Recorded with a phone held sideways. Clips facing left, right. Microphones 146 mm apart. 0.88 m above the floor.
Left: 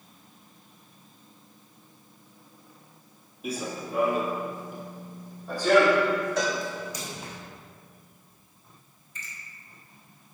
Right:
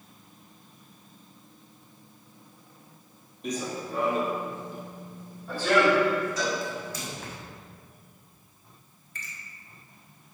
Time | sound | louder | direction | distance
3.4 | running footsteps | right 1 dB | 10° left (ahead or behind) | 1.3 m
6.4 | a cowbell | left 2 dB | 75° left (ahead or behind) | 3.5 m
9.2 | a finger snap | right 1 dB | 75° right (ahead or behind) | 2 m